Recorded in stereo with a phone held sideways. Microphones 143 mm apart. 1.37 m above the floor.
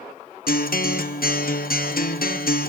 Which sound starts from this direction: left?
A guitar, at 0.5 s.